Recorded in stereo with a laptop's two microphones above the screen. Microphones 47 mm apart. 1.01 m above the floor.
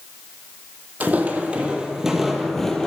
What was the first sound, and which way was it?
Footsteps, 35° right (ahead or behind).